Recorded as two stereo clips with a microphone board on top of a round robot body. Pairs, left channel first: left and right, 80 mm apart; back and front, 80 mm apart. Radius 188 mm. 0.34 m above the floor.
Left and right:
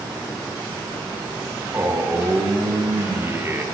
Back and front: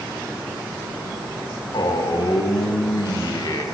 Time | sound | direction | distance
1.7 | a man speaking | 150° right | 4.5 m